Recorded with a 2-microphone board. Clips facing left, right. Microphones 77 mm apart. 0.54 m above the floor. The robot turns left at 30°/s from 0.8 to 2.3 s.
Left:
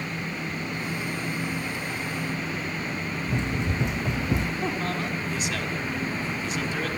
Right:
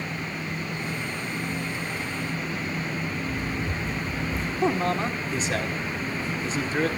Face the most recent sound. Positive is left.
turn(degrees=-30)  # may be behind; listen again after turning